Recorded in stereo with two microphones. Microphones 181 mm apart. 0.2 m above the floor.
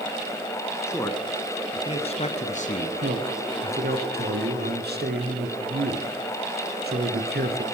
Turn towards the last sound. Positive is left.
turn(degrees=-60)  # may be behind; listen again after turning